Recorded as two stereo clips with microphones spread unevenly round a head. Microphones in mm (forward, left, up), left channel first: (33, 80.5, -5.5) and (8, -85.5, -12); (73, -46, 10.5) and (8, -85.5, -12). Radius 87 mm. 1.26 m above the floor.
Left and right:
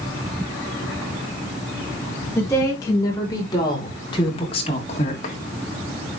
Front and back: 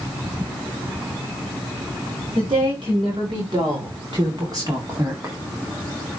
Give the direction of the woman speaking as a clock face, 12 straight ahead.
7 o'clock.